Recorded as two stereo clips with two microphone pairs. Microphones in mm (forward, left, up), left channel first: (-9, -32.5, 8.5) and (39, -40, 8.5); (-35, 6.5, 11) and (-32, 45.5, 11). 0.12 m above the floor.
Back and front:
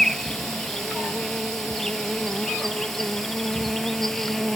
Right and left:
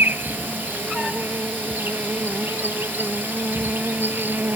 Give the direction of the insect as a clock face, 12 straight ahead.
9 o'clock.